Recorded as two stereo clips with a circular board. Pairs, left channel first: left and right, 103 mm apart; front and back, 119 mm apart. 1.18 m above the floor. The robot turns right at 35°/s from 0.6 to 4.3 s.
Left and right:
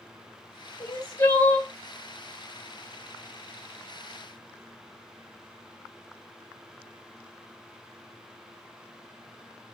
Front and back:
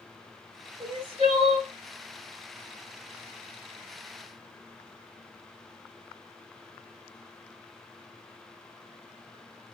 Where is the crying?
140° left, 2.5 m; by 1.7 s 170° left, 2.5 m.